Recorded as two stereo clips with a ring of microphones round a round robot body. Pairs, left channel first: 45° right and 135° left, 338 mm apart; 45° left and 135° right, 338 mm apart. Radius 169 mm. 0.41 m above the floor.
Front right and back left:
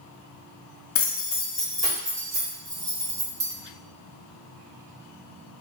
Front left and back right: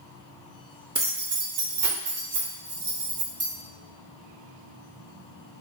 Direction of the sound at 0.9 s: 65° right.